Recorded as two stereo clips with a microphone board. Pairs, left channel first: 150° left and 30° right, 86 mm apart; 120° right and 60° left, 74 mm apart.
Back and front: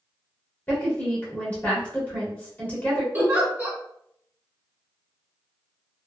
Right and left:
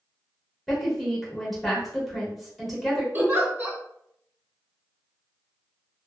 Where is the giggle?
20° left, 1.1 m.